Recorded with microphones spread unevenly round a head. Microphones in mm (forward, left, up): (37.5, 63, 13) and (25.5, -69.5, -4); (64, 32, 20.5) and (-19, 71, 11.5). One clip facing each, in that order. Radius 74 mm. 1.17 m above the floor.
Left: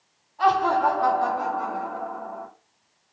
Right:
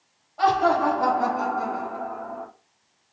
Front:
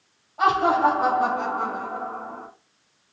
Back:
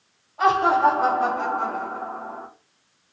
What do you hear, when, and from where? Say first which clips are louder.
0.4 s laughter: even, back 1 dB; 105° right, 4.5 m